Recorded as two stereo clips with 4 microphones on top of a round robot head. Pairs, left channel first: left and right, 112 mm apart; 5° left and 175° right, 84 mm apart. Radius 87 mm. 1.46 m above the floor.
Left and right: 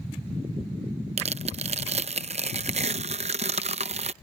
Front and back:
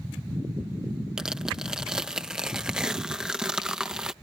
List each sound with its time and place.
1.2 s tearing paper: 90° right